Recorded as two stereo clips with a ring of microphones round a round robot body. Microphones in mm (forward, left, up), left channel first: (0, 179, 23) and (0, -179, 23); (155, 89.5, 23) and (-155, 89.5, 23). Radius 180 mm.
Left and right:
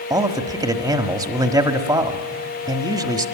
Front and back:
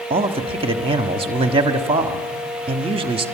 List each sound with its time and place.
0.1 s a man speaking: 150° right, 1.1 m